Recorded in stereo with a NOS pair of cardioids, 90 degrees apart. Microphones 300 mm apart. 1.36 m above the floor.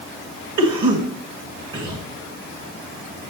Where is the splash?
I don't hear a splash.